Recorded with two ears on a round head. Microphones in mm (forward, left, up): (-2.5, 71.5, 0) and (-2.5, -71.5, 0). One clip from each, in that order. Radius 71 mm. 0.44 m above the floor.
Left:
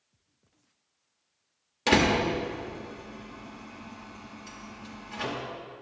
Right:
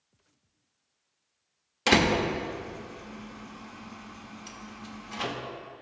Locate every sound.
1.9 s a door slam: 25° right (ahead or behind), 0.8 m